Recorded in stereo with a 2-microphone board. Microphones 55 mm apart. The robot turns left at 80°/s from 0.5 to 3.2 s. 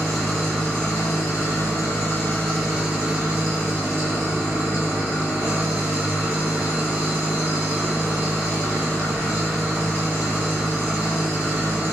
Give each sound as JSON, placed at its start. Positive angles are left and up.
{"t": 0.0, "sound": "an engine running", "azimuth_deg": 175, "distance_m": 1.7}